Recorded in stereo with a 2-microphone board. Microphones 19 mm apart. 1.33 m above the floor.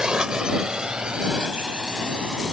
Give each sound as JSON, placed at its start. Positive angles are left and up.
{"t": 0.0, "sound": "a drone", "side_deg": -50}